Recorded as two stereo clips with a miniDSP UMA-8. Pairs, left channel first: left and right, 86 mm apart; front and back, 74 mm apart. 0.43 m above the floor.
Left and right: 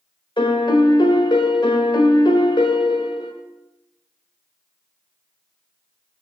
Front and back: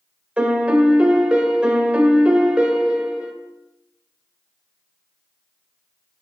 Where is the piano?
105° left, 0.7 m.